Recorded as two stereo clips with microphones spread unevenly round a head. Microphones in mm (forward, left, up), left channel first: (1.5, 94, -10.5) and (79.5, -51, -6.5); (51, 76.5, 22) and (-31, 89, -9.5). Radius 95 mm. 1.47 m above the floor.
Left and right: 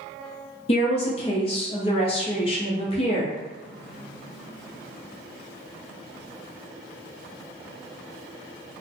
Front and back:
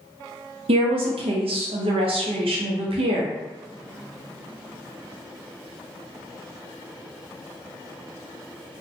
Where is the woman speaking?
170° left, 0.6 m.